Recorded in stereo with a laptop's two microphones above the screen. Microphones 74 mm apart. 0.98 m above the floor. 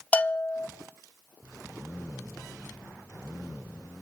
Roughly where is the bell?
Centre.